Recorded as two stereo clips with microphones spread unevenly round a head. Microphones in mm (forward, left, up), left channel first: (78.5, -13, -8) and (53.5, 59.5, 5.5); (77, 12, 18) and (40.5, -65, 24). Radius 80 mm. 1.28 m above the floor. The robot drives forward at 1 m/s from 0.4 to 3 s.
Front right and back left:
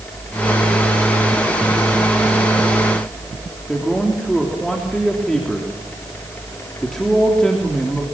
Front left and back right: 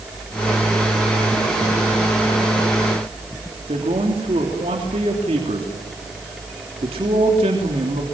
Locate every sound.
3.7 s a man speaking: 160° right, 3 m